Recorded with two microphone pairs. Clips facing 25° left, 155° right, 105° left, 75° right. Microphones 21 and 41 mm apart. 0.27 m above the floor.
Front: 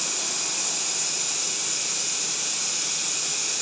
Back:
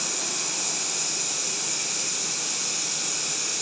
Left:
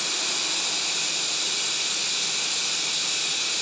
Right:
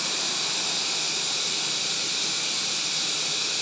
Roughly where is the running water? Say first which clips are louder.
Front 1 dB, left 1 dB; left.